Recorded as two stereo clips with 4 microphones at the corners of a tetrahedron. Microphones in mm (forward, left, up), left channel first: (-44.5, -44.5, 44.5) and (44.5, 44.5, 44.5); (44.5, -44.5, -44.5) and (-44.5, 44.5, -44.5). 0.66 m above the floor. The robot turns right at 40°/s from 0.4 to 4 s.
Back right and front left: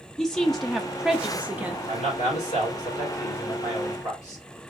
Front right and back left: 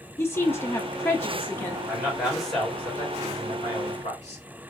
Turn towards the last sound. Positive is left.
turn(degrees=-75)